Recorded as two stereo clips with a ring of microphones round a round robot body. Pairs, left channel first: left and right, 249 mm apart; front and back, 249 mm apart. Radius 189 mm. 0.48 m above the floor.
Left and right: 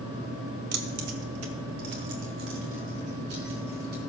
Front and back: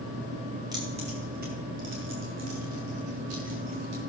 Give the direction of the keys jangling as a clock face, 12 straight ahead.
3 o'clock.